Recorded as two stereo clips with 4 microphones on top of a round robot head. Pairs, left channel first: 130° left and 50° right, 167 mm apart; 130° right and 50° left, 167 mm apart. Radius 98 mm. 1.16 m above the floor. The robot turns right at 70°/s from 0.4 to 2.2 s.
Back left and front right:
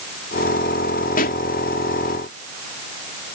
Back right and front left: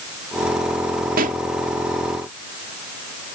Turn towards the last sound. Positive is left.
turn(degrees=160)